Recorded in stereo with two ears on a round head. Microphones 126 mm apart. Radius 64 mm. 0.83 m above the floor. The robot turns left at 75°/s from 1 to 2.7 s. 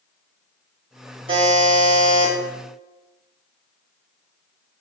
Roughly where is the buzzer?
Ahead right.